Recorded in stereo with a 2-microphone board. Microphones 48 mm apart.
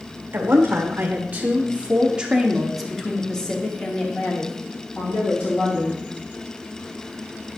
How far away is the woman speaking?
About 1.9 m.